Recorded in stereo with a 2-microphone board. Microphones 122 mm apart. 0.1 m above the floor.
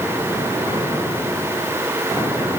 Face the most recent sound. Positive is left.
No sound to turn to.